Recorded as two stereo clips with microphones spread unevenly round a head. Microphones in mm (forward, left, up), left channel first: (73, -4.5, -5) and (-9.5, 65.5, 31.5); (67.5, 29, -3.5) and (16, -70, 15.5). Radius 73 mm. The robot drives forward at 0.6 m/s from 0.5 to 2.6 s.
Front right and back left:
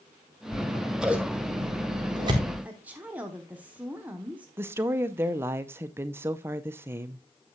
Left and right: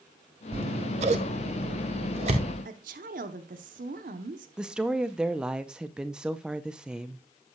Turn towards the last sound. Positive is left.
turn(degrees=175)